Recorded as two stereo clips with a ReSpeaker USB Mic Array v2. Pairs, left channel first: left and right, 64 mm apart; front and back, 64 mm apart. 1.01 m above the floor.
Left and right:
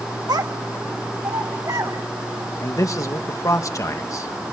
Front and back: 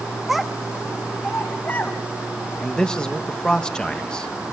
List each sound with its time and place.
0.3 s a child speaking: 95° right, 0.7 m; by 2.0 s 55° right, 2 m
2.6 s a man speaking: 75° left, 1.4 m